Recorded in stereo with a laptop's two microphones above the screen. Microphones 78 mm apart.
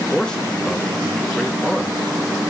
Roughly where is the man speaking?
Centre.